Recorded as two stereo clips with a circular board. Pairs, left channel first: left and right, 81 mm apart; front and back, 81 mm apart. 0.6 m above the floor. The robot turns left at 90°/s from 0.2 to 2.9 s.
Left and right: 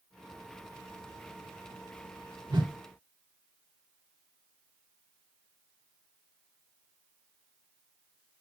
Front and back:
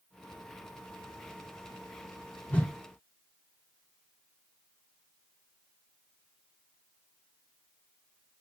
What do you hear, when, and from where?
2.5 s a whoosh: 70° right, 0.5 m; by 2.7 s 90° right, 0.5 m